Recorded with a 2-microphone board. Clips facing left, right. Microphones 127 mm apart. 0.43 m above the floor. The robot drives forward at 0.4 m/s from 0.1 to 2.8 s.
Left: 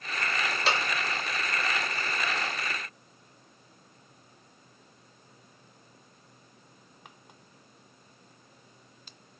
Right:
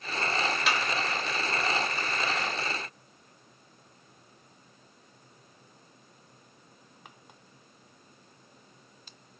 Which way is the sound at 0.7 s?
35° left (ahead or behind).